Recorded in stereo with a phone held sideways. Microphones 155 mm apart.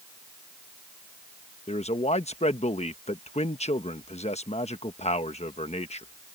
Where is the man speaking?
45° left (ahead or behind).